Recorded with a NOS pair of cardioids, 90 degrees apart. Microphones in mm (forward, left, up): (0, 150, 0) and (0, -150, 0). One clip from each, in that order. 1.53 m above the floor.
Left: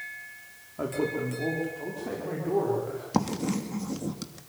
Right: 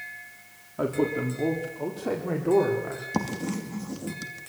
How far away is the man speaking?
About 4 m.